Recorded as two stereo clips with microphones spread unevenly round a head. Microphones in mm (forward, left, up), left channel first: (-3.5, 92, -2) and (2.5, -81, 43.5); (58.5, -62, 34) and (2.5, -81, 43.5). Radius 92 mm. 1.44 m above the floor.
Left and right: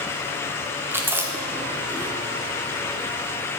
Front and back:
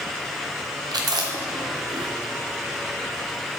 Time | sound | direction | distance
0.9 | chewing | 165° right | 1.1 m